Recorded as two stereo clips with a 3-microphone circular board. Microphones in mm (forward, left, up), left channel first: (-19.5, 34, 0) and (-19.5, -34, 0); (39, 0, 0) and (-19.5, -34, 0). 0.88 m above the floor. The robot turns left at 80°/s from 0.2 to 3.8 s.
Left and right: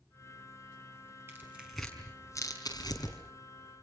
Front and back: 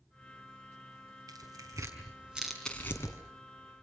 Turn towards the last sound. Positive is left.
turn(degrees=20)